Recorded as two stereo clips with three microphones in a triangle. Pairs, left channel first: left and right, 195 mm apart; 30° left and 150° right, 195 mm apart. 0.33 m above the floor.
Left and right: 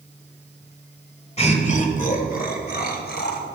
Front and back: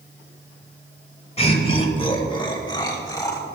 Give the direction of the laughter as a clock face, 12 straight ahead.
10 o'clock.